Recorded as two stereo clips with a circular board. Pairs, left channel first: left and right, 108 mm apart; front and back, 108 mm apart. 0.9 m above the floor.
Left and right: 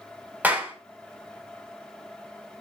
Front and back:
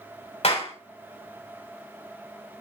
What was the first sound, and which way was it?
A clap, 15° right.